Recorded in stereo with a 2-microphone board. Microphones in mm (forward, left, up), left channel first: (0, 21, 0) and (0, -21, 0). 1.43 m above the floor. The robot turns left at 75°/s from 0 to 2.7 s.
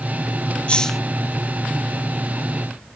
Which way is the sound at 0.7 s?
30° left (ahead or behind).